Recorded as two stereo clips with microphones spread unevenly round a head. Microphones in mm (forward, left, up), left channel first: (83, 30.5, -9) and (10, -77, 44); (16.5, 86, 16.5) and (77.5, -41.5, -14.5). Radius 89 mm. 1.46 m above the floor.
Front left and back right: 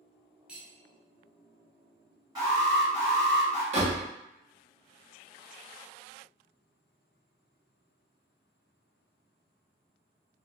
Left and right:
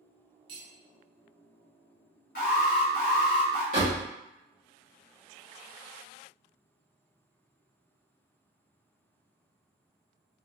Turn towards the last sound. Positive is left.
turn(degrees=-120)